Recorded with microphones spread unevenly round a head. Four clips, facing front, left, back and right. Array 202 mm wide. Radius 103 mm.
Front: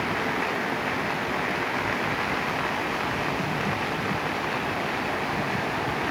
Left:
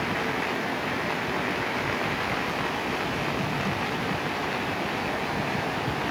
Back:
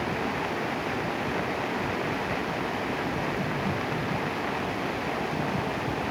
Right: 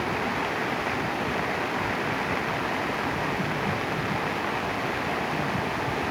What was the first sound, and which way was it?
Only background noise.